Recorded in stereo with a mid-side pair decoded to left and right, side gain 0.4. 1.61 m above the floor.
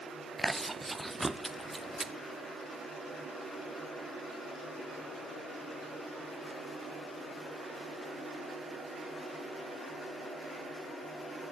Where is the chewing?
15° right, 0.6 m.